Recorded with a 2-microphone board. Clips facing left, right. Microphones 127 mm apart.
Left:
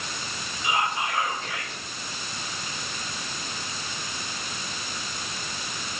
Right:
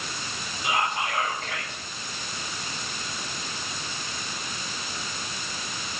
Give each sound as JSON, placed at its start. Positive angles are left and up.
{"t": 0.6, "sound": "whispering", "side_deg": -60, "distance_m": 5.5}